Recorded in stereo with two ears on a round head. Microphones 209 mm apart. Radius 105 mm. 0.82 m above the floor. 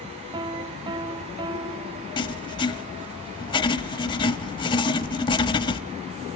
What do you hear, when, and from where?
0.3 s a piano: 20° right (ahead or behind), 0.8 m
2.2 s writing: 20° left (ahead or behind), 0.6 m